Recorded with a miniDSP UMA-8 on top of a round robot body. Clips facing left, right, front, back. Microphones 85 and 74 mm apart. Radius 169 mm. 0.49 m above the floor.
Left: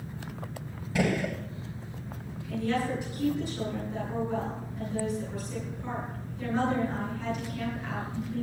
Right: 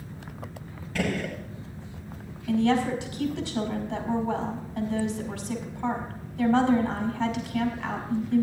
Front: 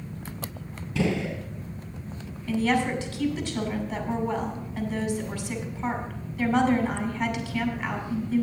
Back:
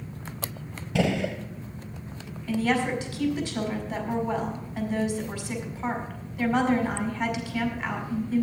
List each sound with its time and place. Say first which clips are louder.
0.9 s a gunshot: left 1 dB, back 1 dB; 165° left, 2.0 m
2.5 s a woman speaking: right 6 dB, front 1 dB; 100° right, 5 m